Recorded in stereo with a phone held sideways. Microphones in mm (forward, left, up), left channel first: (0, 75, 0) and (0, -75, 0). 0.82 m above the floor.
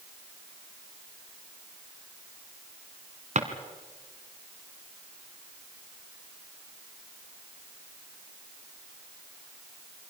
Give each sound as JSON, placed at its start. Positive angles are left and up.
{"t": 3.4, "sound": "a drawer", "side_deg": -55, "distance_m": 2.0}